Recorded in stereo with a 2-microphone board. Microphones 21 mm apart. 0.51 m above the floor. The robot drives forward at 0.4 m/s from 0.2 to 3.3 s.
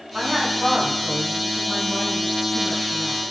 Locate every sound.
0.1 s a woman speaking: 40° right (ahead or behind), 1.9 m; by 3.2 s 55° right (ahead or behind), 1.5 m